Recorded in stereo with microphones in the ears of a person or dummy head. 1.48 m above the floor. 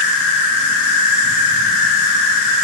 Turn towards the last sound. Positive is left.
turn(degrees=55)  # may be behind; listen again after turning